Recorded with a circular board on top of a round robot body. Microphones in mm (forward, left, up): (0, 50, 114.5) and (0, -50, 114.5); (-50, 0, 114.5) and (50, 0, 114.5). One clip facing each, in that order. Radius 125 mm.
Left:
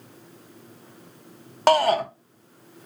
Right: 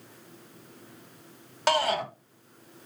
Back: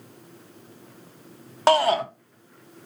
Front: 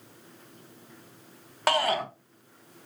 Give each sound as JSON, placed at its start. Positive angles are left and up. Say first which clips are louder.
{"t": 1.7, "sound": "a shout", "louder": "left 7 dB, back 7 dB", "azimuth_deg": 120, "distance_m": 1.1}